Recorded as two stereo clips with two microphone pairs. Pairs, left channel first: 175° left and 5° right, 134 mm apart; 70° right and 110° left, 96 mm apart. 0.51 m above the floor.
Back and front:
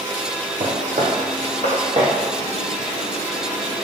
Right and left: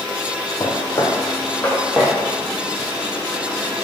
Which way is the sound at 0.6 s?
30° right.